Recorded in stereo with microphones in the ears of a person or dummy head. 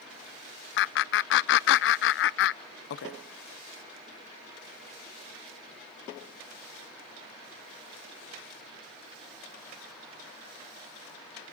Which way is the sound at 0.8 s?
70° left (ahead or behind).